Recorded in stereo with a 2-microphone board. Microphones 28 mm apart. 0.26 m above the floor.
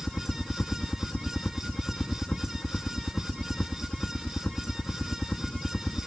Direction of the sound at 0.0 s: 60° left (ahead or behind).